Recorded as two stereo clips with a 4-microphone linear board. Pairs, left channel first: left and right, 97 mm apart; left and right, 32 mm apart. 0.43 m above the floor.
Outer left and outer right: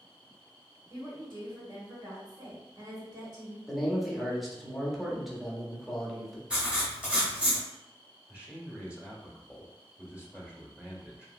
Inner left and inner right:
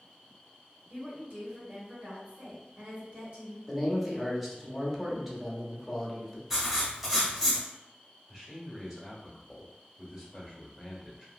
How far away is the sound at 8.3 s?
About 1.2 m.